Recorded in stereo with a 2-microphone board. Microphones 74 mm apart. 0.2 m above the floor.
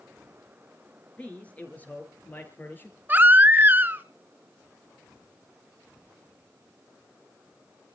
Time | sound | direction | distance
1.2 | a man speaking | 15° left (ahead or behind) | 3.5 m
3.1 | a baby crying | 25° right (ahead or behind) | 0.8 m